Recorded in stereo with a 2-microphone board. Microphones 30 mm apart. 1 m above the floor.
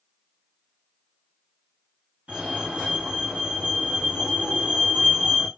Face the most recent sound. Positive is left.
turn(degrees=-55)  # may be behind; listen again after turning